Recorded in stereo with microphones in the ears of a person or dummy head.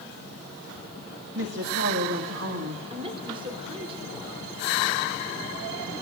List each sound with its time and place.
1.4 s a woman speaking: 65° right (ahead or behind), 2.0 m
2.9 s a woman speaking: 25° right (ahead or behind), 3 m